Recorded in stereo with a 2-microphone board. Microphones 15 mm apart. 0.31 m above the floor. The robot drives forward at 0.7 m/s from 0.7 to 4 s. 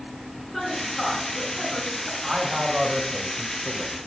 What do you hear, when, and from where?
0.5 s a woman speaking: 15° left (ahead or behind), 3 m; by 2.1 s 20° left (ahead or behind), 2 m
2.2 s a man speaking: 30° right (ahead or behind), 1.2 m